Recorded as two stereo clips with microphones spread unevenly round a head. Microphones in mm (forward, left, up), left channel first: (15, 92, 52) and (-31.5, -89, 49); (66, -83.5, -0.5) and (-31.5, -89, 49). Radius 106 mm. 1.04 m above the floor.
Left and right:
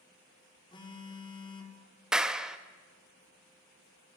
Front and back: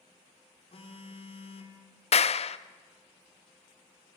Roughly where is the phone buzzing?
Ahead.